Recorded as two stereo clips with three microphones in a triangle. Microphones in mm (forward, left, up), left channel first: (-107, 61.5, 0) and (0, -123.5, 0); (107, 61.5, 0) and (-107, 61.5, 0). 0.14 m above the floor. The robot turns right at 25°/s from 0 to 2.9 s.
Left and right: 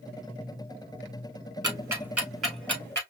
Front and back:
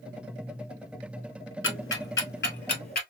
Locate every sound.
1.6 s ticking: 10° left, 1.1 m; by 3.0 s 40° left, 1.1 m